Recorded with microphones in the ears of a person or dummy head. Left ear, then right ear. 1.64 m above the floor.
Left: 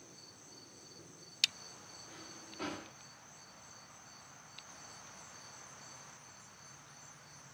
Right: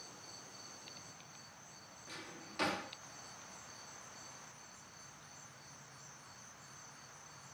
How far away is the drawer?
About 1.6 m.